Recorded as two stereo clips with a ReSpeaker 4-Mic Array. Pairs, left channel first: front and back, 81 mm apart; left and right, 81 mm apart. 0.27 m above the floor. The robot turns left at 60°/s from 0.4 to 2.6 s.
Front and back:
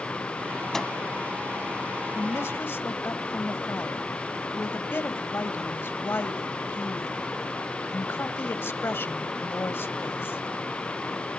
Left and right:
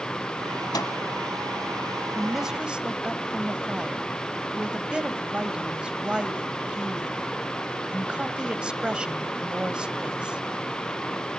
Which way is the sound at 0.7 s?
85° left.